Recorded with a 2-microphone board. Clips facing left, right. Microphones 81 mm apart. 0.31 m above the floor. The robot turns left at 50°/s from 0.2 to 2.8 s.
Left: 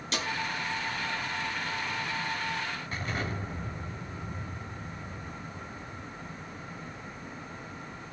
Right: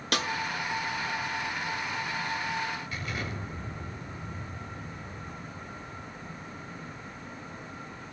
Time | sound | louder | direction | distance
0.1 | a snare drum | right 4 dB | 75° right (ahead or behind) | 1.3 m
2.9 | an explosion | left 2 dB | 40° left (ahead or behind) | 3.5 m